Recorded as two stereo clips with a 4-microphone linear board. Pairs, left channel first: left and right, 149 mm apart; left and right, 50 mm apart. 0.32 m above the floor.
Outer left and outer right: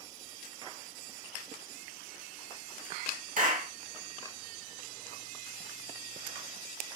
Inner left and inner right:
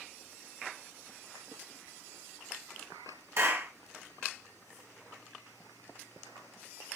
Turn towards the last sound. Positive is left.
turn(degrees=-65)  # may be behind; listen again after turning